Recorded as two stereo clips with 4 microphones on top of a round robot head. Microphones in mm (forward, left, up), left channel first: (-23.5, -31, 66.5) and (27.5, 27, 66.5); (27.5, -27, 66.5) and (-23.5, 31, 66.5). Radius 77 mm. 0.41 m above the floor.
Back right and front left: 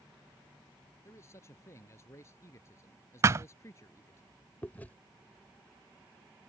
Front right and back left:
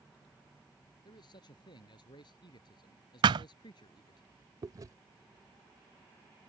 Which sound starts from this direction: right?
A man speaking, at 1.1 s.